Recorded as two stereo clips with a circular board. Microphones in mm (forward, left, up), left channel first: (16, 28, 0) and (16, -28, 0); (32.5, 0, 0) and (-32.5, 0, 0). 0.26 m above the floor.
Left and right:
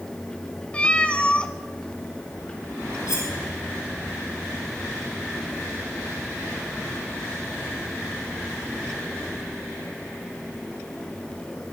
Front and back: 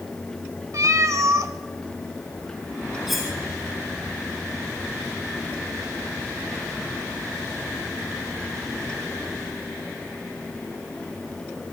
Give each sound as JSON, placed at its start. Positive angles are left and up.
{"t": 0.7, "sound": "a cat meowing", "azimuth_deg": 155, "distance_m": 1.2}
{"t": 3.1, "sound": "cutlery clinking", "azimuth_deg": 90, "distance_m": 5.5}